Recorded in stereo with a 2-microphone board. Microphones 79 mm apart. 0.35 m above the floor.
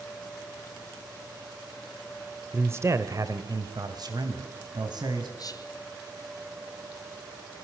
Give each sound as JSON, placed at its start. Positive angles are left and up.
{"t": 2.5, "sound": "a man speaking", "side_deg": -25, "distance_m": 0.9}
{"t": 5.4, "sound": "whispering", "side_deg": 50, "distance_m": 3.0}